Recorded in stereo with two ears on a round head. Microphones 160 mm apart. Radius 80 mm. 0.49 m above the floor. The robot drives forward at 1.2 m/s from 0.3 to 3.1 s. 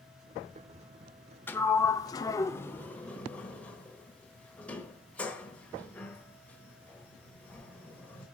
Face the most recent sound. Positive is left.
turn(degrees=10)  # may be behind; listen again after turning